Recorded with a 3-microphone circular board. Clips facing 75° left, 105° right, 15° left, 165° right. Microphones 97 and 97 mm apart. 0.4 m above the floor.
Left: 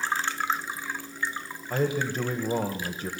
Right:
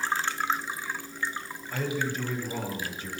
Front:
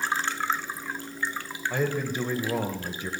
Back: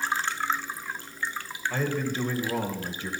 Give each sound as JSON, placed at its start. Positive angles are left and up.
{"t": 1.7, "sound": "a man speaking", "azimuth_deg": 85, "distance_m": 1.5}